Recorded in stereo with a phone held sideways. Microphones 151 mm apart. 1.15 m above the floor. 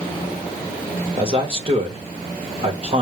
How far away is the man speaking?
About 2 m.